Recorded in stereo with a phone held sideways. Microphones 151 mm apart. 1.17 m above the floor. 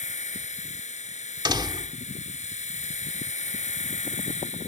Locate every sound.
0.0 s a machine running: 50° left (ahead or behind)
1.4 s a door slam: 30° right (ahead or behind)